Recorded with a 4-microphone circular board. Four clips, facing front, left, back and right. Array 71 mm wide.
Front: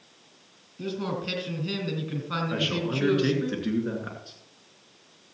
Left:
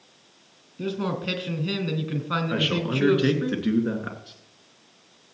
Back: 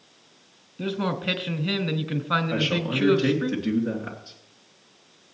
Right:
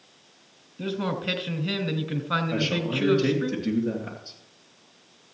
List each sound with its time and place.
0.8 s a man speaking: 170° right, 1.3 m
2.5 s a man speaking: 90° left, 2 m